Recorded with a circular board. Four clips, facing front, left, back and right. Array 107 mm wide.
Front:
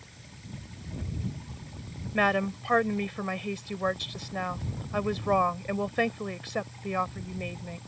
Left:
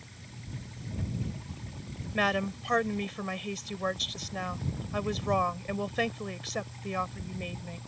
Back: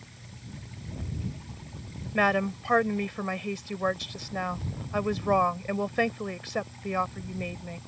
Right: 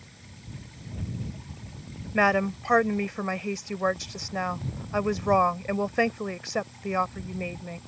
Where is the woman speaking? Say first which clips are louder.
Right 6 dB, back 1 dB; 100° right.